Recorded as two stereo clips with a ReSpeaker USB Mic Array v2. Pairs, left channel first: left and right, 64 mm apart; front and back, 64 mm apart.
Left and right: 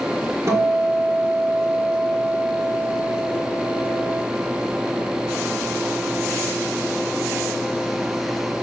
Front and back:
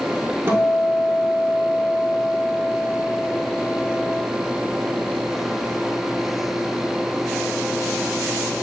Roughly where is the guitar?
Behind right.